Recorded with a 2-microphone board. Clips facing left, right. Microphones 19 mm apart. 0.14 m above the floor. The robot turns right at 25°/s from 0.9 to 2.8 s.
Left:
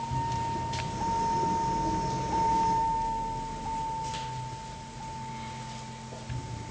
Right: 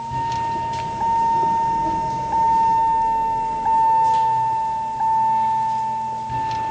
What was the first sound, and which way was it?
A vehicle, 35° right (ahead or behind).